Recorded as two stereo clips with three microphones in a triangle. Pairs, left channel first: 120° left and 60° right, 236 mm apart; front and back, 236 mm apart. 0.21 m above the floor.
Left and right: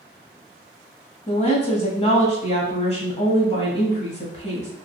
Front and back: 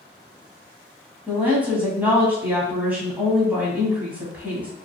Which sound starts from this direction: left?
A woman speaking, at 1.3 s.